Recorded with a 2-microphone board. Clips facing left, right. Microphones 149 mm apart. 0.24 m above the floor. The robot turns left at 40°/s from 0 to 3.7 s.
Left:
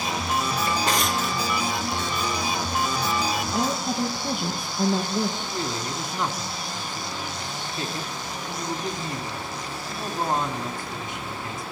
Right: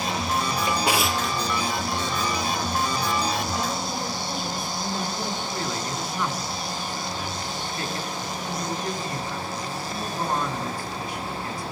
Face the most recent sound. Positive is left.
turn(degrees=25)  # may be behind; listen again after turning